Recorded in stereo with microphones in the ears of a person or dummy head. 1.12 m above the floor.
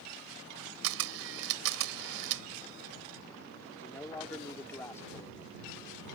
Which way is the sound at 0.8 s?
80° right.